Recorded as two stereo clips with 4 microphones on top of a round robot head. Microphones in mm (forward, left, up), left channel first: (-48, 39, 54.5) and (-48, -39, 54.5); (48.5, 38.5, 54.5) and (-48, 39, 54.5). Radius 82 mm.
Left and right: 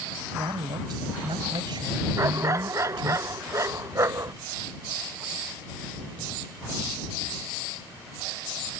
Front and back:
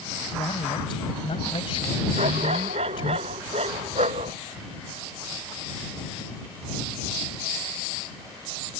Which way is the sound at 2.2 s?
140° right.